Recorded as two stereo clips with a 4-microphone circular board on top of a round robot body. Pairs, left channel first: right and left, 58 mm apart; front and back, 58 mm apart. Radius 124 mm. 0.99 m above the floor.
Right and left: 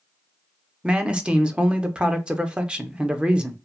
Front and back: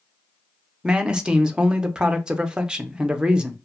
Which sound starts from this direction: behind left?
A man speaking, at 0.8 s.